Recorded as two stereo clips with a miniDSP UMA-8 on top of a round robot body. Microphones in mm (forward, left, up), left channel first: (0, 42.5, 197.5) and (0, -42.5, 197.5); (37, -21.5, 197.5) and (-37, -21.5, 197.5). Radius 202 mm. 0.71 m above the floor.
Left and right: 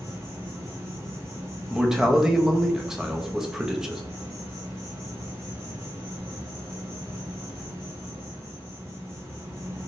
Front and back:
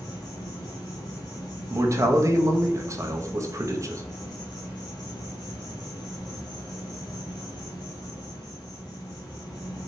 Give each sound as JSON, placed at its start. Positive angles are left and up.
{"t": 0.0, "sound": "an insect", "azimuth_deg": -30, "distance_m": 0.8}
{"t": 1.7, "sound": "a man speaking", "azimuth_deg": -170, "distance_m": 0.8}